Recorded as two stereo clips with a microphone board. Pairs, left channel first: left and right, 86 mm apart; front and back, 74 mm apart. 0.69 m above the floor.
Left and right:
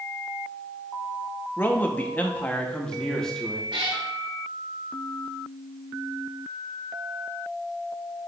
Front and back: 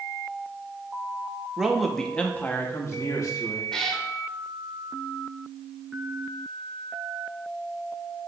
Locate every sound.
1.6 s a man speaking: 110° left, 0.9 m; by 3.7 s 5° left, 1.4 m
3.7 s a cat meowing: 85° right, 1.4 m